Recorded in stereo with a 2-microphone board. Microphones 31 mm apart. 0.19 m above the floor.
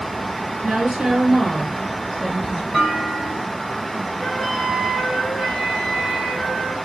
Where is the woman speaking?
35° right (ahead or behind), 2.5 m; by 2.6 s 5° right (ahead or behind), 4.5 m.